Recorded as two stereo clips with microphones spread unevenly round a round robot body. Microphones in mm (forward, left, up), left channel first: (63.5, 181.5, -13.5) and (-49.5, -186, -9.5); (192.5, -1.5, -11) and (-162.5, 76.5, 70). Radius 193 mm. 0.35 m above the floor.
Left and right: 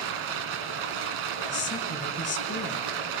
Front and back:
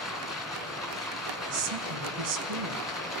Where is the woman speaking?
145° left, 4.5 m.